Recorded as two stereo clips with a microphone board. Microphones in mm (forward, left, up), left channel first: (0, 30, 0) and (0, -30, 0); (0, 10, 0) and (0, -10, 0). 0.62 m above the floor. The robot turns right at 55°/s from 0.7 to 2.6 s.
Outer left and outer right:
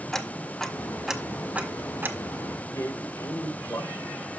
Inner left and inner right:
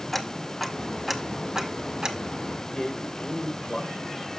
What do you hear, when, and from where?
0.1 s ticking: 10° left (ahead or behind), 0.8 m; by 2.5 s 40° right (ahead or behind), 0.8 m
2.6 s a man speaking: 55° left (ahead or behind), 2 m